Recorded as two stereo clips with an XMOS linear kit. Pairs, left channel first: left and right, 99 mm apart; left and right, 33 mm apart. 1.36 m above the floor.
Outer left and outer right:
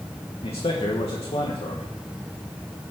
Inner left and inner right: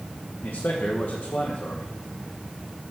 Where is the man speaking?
80° left, 1.5 m.